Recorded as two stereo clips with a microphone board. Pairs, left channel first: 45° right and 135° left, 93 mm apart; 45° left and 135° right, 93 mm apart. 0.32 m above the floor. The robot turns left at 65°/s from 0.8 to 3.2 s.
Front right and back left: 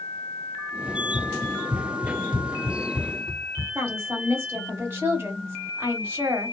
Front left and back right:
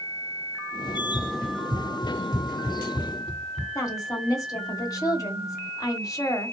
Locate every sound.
0.9 s running footsteps: 70° right, 0.9 m; by 3.6 s 65° left, 1.6 m
3.8 s a woman speaking: 80° left, 1.3 m